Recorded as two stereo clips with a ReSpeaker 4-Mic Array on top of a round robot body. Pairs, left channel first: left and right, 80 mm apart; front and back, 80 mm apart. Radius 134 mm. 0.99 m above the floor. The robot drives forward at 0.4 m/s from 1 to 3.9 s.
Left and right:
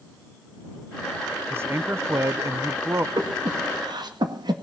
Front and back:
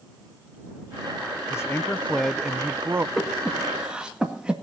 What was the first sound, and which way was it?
A man speaking, 40° right.